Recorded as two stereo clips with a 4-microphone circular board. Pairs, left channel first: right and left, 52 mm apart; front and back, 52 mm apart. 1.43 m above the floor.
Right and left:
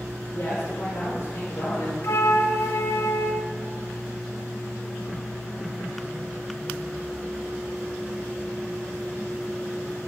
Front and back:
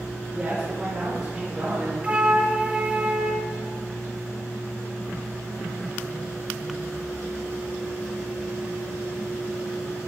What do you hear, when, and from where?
0.3 s a man speaking: 110° right, 4.5 m; by 1.9 s 105° right, 6 m
2.0 s a flute: 115° right, 0.8 m